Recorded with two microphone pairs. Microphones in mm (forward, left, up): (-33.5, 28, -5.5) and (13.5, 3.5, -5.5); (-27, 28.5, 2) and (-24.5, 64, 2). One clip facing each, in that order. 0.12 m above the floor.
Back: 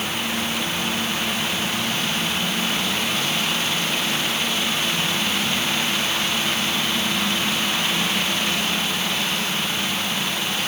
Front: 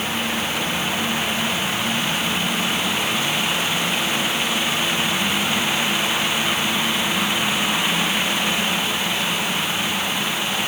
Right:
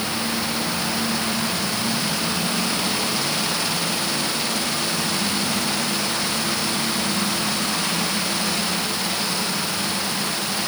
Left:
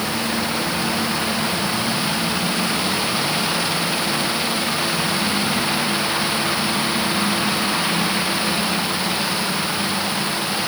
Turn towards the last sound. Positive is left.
No sound to turn to.